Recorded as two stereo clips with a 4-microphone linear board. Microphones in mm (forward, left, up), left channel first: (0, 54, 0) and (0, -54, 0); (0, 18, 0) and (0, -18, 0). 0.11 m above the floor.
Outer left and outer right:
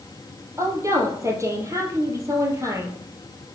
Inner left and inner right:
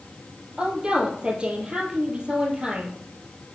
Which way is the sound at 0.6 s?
25° right (ahead or behind).